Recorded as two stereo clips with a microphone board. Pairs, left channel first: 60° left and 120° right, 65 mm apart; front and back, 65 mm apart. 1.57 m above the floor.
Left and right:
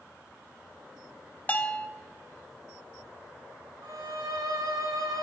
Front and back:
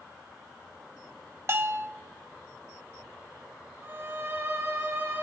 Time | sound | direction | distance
1.5 | a bell | 125° left | 1.2 m
3.8 | a violin | 130° right | 3 m